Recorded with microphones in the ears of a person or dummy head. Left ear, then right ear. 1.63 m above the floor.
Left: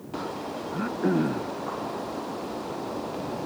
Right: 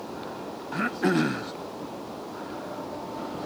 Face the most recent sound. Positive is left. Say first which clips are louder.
# right 2 dB
turn(degrees=-80)